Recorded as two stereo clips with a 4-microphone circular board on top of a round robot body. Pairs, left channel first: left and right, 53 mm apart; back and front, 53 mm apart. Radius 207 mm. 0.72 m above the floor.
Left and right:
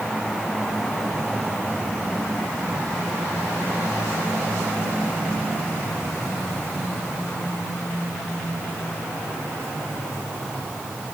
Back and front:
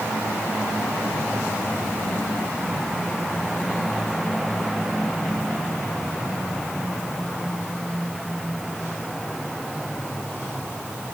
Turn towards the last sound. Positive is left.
No sound to turn to.